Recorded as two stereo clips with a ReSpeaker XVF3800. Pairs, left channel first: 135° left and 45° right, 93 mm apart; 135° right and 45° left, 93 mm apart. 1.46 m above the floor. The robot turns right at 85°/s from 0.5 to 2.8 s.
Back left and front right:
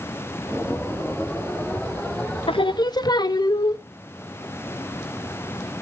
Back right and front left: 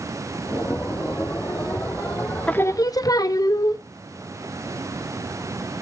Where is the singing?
150° left, 0.7 m; by 3.8 s 175° left, 0.7 m.